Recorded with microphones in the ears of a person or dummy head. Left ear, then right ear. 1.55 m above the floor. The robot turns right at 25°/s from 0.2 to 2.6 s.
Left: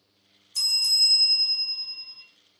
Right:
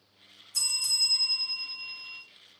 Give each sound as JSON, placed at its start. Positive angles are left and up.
{"t": 0.5, "sound": "a bell", "azimuth_deg": -110, "distance_m": 2.0}